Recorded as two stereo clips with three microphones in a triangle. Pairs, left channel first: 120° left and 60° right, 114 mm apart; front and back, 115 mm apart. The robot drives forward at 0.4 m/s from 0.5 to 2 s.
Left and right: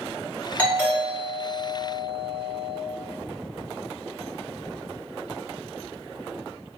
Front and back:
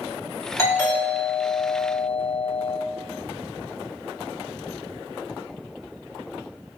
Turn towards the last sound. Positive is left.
turn(degrees=85)